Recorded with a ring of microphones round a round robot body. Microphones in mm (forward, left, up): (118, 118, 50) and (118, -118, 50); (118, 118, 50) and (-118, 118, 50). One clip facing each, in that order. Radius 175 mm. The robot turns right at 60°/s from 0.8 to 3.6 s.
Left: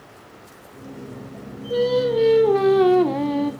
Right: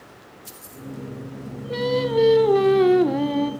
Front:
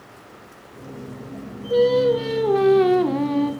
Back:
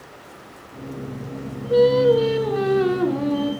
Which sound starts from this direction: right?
Singing, at 1.7 s.